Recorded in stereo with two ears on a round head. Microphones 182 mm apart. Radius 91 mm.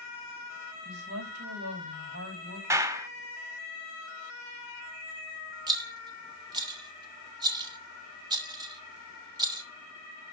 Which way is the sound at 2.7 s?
15° right (ahead or behind).